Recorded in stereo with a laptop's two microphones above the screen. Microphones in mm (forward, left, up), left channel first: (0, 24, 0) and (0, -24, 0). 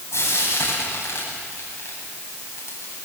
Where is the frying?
60° left (ahead or behind), 9.5 m.